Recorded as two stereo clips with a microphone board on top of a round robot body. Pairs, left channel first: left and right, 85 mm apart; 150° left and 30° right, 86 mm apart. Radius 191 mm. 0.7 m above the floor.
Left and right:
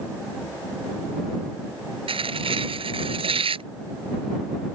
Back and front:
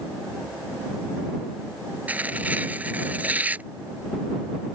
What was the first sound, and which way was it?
Tearing paper, 100° right.